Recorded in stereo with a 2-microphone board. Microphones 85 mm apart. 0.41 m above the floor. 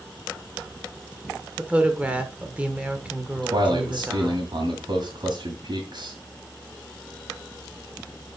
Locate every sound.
1.6 s a woman speaking: 15° right (ahead or behind), 1.2 m
3.4 s a man speaking: 60° right (ahead or behind), 2 m